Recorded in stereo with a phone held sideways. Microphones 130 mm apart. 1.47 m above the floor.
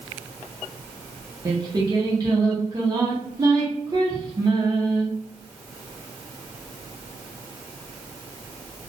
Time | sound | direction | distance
1.4 | singing | 30° right (ahead or behind) | 1.0 m